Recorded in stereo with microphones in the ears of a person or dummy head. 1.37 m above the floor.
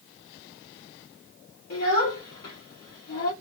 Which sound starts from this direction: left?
A child speaking, at 1.7 s.